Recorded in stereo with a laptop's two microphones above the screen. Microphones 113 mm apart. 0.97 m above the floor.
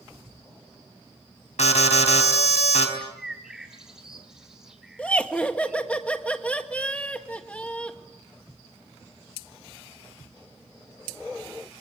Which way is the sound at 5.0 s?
10° left (ahead or behind).